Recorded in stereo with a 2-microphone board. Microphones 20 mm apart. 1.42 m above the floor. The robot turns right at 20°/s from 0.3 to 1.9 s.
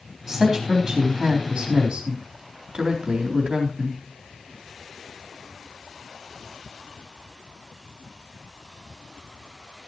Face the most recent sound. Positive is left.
turn(degrees=-135)